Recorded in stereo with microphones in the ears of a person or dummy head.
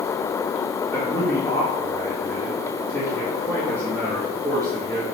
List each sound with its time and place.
0.9 s a man speaking: 10° left (ahead or behind), 2.5 m